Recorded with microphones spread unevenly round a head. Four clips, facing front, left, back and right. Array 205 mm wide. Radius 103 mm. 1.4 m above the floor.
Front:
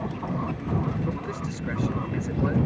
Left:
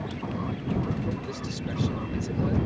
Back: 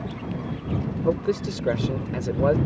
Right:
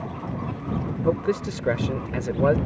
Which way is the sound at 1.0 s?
130° right.